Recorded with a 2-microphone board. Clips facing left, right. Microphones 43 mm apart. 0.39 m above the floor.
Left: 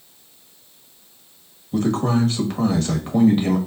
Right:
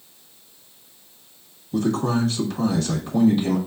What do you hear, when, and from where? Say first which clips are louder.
1.7 s a man speaking: left 2 dB; 40° left (ahead or behind), 1.4 m